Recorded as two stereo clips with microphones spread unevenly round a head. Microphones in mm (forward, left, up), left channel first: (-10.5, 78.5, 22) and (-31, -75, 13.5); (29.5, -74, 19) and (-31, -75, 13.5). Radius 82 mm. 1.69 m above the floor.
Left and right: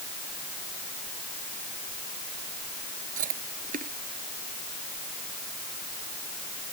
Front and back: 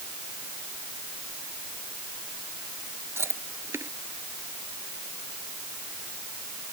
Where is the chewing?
135° right.